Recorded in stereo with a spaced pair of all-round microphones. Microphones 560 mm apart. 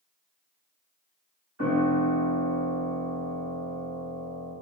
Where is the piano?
30° right (ahead or behind), 3 m.